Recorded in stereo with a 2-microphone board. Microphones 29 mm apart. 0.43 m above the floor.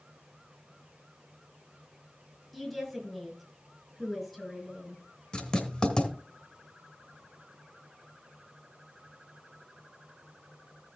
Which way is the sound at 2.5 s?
10° left (ahead or behind).